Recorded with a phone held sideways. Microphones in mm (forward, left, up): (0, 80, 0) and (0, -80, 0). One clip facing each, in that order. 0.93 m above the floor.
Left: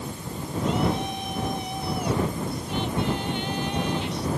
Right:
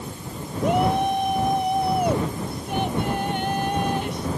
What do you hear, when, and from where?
0.6 s a shout: 60° right (ahead or behind); by 4.3 s 50° right (ahead or behind)